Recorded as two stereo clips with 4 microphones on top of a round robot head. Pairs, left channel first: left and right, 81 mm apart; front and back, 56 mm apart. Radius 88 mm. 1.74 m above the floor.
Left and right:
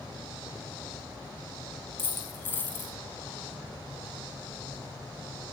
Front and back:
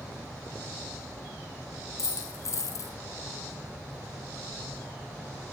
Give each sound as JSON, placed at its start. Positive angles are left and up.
{"t": 2.0, "sound": "a dropped coin", "azimuth_deg": 25, "distance_m": 5.0}